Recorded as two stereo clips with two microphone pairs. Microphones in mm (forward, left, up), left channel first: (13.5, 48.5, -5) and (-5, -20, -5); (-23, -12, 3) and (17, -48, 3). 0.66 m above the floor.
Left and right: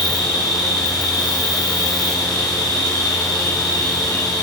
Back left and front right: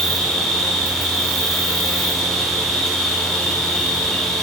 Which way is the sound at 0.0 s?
50° left.